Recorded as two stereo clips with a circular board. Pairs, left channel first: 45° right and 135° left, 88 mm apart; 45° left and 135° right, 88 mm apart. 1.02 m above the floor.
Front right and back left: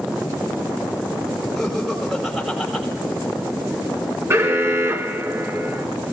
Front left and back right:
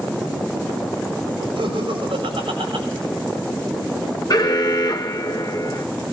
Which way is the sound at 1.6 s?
135° right.